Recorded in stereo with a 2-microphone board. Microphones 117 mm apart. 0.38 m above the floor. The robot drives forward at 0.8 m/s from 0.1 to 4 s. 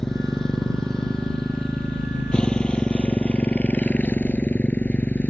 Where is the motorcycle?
5° left (ahead or behind); by 5.3 s 10° left (ahead or behind).